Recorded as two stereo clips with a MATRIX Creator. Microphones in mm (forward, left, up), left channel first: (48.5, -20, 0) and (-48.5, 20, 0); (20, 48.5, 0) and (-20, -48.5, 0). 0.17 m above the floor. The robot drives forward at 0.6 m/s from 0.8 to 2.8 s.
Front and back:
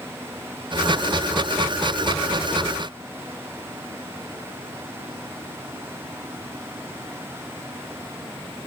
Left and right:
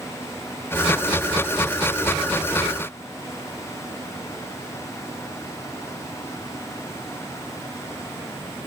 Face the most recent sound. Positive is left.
No sound to turn to.